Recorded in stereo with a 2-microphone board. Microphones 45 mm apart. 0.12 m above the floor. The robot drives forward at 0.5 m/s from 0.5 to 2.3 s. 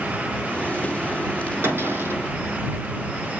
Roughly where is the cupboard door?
Right.